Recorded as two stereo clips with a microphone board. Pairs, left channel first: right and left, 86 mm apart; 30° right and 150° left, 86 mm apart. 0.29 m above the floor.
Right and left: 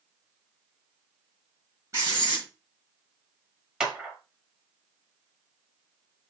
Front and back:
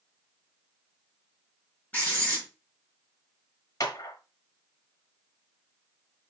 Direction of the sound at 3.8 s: 10° left.